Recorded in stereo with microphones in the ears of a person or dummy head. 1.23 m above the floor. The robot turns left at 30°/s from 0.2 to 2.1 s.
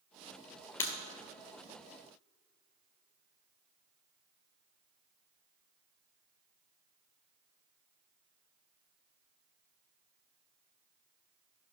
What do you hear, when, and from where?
0.8 s breaking glass: 15° left (ahead or behind), 2 m; by 0.9 s 10° left (ahead or behind), 2 m